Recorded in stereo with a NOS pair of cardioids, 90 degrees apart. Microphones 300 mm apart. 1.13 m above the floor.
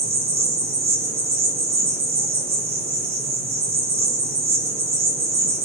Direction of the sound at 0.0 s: 60° right.